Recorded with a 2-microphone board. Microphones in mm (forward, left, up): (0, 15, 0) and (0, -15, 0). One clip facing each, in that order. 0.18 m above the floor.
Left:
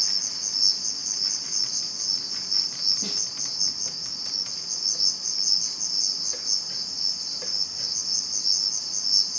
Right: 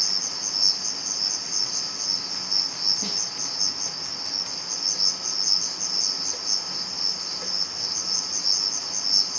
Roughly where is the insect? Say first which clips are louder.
Right 1 dB; centre.